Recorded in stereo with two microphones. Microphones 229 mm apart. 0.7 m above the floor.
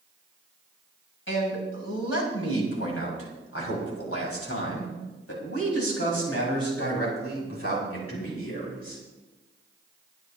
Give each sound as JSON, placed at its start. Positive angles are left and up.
{"t": 1.3, "sound": "a man speaking", "side_deg": 60, "distance_m": 4.5}